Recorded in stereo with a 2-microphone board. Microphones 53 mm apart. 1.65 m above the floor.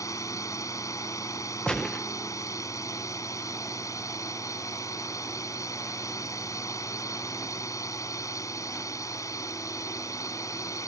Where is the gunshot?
15° left (ahead or behind).